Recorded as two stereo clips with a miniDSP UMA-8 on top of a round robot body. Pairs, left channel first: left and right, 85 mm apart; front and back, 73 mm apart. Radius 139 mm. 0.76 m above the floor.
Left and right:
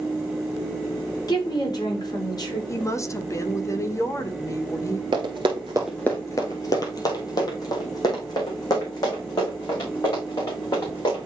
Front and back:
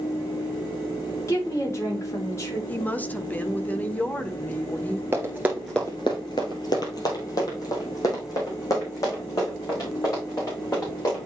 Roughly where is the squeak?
No squeak in this recording.